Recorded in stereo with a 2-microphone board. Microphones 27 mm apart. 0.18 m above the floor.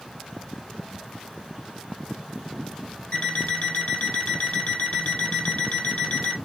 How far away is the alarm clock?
About 3 m.